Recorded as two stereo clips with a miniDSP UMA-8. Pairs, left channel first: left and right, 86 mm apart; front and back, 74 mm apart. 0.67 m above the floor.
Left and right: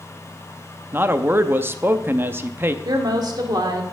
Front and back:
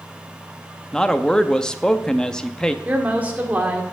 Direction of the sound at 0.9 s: 70° right.